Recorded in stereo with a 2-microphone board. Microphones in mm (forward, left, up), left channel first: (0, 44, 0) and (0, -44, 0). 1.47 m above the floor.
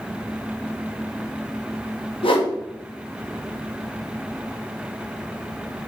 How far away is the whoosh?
About 1.0 m.